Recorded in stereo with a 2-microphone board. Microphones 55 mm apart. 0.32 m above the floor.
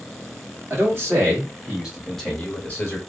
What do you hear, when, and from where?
0.7 s a man speaking: 45° right (ahead or behind), 1.7 m; by 3.0 s 40° left (ahead or behind), 1.2 m